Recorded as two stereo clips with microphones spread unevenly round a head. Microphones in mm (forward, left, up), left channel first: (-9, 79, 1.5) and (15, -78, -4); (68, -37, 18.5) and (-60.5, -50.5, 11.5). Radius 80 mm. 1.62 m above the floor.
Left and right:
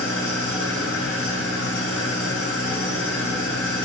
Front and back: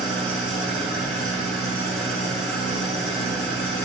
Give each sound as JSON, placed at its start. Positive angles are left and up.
{"t": 0.0, "sound": "an engine running", "azimuth_deg": 95, "distance_m": 8.5}